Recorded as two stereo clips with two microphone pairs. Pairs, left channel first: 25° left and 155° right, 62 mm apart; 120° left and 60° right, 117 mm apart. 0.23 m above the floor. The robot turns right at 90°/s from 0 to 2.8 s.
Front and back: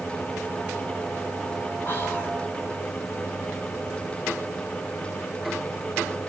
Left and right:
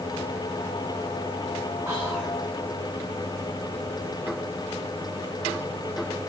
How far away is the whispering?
About 1.7 m.